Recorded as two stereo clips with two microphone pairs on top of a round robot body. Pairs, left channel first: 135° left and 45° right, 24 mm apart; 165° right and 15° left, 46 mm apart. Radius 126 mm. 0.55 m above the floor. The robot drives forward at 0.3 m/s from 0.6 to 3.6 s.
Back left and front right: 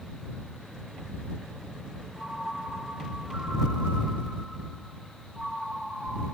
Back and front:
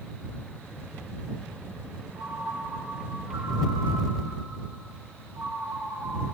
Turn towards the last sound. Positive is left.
turn(degrees=-5)